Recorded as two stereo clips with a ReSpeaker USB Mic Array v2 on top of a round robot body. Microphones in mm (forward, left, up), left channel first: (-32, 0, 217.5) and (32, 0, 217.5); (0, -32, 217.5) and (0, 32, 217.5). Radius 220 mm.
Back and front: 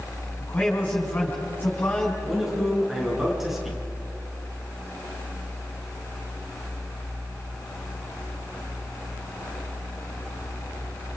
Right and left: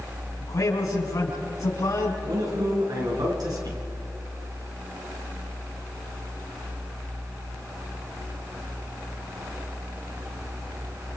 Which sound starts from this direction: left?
A man speaking, at 2.2 s.